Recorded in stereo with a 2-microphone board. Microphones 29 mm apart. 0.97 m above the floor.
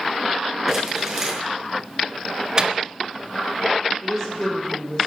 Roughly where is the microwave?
Right.